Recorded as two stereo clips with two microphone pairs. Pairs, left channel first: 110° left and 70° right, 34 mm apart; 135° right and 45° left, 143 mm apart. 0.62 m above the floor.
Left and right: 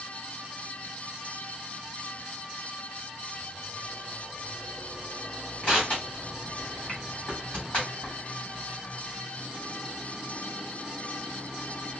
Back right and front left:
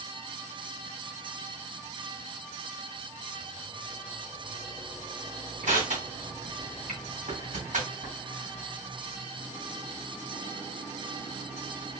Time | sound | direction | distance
5.6 | crushing | 65° left | 3 m